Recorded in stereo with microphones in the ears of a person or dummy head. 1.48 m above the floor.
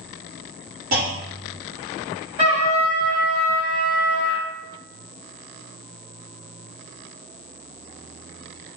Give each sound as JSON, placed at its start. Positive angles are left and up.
{"t": 0.9, "sound": "a clunk", "side_deg": -45, "distance_m": 1.1}
{"t": 2.4, "sound": "a trumpet", "side_deg": -20, "distance_m": 1.8}